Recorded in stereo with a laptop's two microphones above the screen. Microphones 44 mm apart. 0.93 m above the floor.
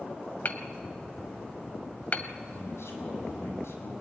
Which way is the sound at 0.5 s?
40° left (ahead or behind).